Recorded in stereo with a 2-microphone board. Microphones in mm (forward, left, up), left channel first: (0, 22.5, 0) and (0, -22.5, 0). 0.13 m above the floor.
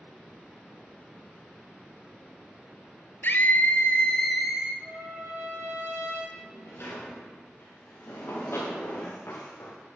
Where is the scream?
50° left (ahead or behind), 1.9 m; by 4.7 s 20° right (ahead or behind), 1.3 m.